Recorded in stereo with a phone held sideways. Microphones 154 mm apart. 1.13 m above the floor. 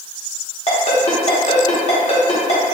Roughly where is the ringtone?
Left.